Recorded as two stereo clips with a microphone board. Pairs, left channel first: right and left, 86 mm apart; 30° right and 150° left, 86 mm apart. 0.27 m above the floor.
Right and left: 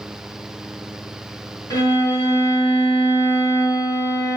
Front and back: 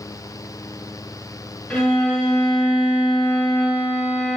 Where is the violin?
110° right, 1.2 m.